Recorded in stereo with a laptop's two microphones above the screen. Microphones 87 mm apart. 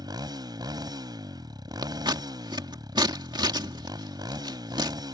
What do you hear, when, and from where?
0.0 s a motorcycle: 50° right (ahead or behind)
1.8 s scissors: 55° right (ahead or behind)